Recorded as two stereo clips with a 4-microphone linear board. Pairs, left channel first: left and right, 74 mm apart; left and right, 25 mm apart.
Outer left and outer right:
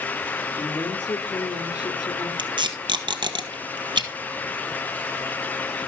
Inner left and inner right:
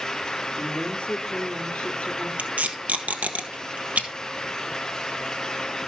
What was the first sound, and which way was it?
A woman speaking, 60° left (ahead or behind).